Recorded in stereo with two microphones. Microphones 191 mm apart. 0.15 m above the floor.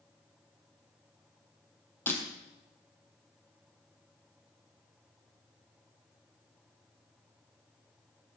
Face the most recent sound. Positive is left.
turn(degrees=10)  # may be behind; listen again after turning